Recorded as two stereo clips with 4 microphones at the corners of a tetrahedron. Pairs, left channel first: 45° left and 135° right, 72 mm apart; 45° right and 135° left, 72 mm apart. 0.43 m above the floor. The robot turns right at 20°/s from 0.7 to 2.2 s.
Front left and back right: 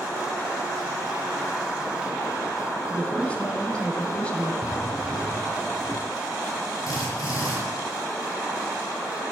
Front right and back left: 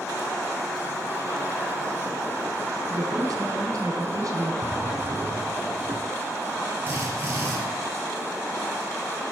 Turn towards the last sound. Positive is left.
turn(degrees=75)